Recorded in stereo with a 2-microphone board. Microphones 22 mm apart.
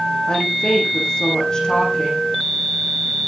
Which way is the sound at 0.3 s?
35° left (ahead or behind).